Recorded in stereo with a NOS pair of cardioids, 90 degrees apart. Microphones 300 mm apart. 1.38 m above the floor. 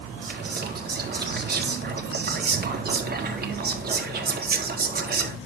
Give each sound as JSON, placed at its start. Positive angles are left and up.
{"t": 0.2, "sound": "whispering", "azimuth_deg": -30, "distance_m": 3.5}